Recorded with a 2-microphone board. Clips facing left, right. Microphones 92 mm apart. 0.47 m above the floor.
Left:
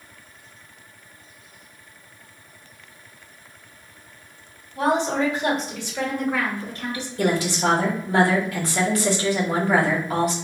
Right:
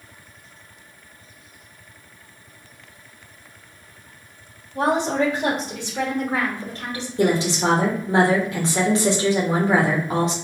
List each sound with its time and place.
4.8 s a woman speaking: 55° right (ahead or behind), 1.9 m; by 7.1 s 30° right (ahead or behind), 1.5 m
7.2 s a woman speaking: 25° right (ahead or behind), 1.0 m